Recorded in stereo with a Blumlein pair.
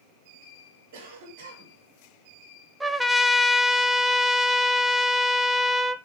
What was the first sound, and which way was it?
A cough, 60° right.